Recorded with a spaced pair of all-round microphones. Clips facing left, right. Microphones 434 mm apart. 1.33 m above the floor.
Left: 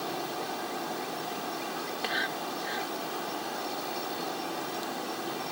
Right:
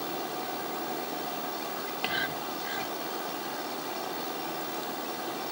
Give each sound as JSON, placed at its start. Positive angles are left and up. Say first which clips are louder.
{"t": 1.8, "sound": "whispering", "louder": "even", "side_deg": -45}